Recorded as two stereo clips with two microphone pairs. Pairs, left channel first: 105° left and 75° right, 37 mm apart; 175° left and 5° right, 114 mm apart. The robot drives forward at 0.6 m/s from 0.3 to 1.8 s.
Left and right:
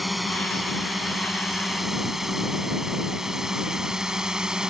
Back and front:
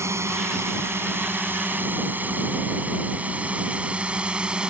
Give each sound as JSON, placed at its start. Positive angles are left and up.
{"t": 0.0, "sound": "a drone", "azimuth_deg": 5}